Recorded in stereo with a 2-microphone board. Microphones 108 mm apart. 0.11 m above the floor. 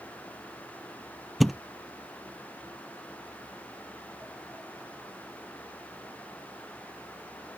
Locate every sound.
1.4 s a thud: centre (ahead or behind)